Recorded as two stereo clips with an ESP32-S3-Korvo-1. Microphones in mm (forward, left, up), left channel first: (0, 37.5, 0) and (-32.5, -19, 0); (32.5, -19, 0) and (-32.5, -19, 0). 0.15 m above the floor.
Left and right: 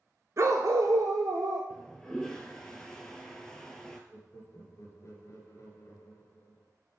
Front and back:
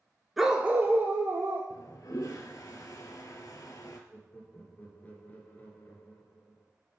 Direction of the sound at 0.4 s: 95° right.